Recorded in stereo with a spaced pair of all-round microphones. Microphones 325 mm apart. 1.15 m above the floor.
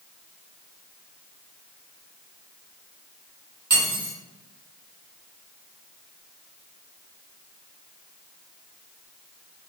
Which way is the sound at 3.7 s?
70° right (ahead or behind).